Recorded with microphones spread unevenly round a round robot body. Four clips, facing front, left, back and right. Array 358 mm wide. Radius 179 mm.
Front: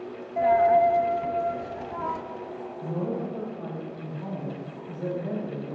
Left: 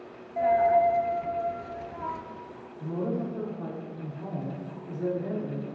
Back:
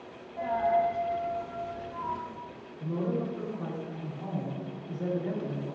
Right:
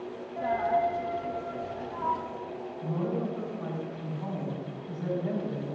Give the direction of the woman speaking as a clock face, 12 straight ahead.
8 o'clock.